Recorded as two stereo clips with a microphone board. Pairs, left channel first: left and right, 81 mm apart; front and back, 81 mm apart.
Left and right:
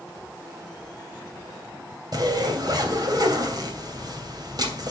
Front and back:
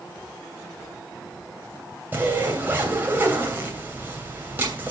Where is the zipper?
115° right, 2.5 m.